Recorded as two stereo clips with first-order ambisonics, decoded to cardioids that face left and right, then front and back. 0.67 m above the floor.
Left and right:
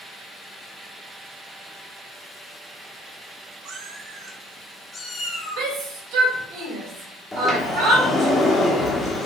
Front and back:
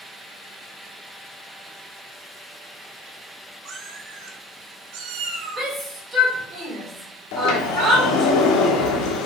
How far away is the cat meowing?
About 1.1 m.